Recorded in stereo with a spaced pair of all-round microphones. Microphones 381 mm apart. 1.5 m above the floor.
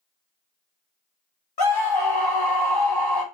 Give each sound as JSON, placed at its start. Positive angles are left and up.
{"t": 1.6, "sound": "a scream", "side_deg": 75, "distance_m": 1.0}